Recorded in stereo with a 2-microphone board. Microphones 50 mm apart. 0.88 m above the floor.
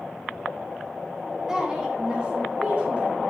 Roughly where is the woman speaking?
Centre.